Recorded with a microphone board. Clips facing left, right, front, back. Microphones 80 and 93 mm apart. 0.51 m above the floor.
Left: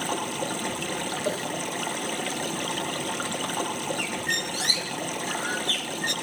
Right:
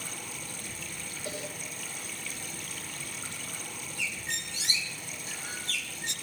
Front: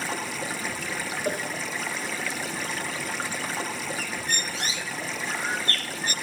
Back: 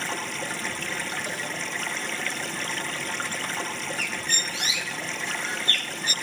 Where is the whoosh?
40° left, 1.9 m.